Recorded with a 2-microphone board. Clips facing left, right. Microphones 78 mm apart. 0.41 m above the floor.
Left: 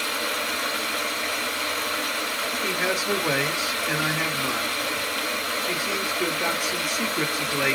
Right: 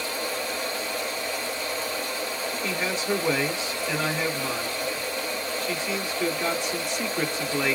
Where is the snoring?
No snoring in this recording.